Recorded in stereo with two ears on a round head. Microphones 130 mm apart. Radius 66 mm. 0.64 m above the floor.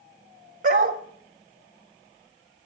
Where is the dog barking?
55° right (ahead or behind), 1.3 m.